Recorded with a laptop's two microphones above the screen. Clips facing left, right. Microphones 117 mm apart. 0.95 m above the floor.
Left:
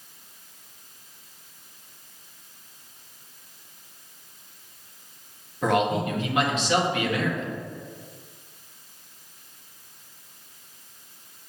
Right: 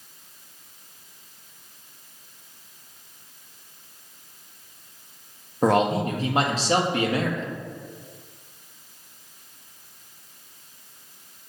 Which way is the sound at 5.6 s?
35° right (ahead or behind).